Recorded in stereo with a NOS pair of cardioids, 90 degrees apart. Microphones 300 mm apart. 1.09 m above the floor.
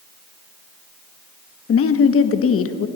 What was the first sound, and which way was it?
A woman speaking, 50° left.